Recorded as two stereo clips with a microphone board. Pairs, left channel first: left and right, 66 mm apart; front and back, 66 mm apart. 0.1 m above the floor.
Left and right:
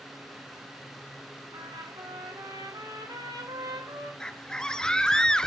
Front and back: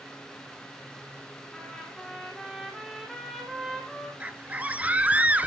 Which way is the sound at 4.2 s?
150° left.